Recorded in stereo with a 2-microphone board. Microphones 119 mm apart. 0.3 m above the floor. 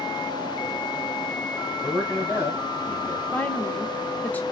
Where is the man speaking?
15° left (ahead or behind), 2.5 m; by 3.2 s 20° left (ahead or behind), 1.5 m.